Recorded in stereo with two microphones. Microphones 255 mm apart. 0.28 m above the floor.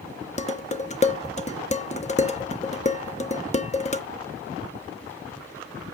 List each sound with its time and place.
0.4 s dishes clattering: 25° left (ahead or behind), 0.9 m